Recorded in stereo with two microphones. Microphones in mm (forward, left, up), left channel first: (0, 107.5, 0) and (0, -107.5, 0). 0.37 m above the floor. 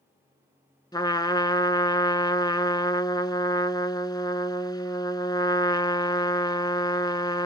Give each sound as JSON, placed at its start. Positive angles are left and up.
{"t": 0.9, "sound": "a trumpet", "side_deg": 20, "distance_m": 0.7}